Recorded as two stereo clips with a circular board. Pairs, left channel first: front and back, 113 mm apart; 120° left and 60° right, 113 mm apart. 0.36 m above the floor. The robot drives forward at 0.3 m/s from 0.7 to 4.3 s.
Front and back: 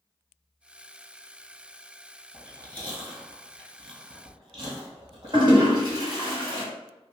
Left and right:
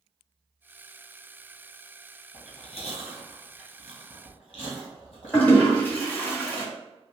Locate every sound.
2.3 s chewing: 140° left, 1.5 m; by 6.3 s 150° left, 1.9 m
5.3 s a toilet flushing: 170° right, 1.5 m